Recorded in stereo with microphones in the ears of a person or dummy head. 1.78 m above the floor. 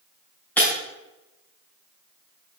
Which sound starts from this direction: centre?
Breaking glass, at 0.6 s.